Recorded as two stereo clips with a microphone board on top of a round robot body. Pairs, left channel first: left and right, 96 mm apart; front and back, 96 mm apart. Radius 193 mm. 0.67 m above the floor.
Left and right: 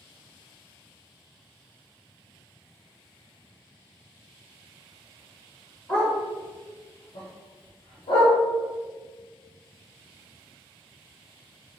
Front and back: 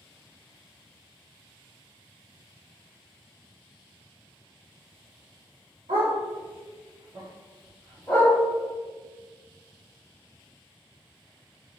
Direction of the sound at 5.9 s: 160° left.